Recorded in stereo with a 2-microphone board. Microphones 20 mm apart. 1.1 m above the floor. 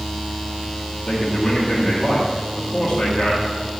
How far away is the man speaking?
About 1.7 m.